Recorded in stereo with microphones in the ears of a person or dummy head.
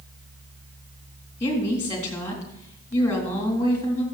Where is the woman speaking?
15° left (ahead or behind), 3.5 m.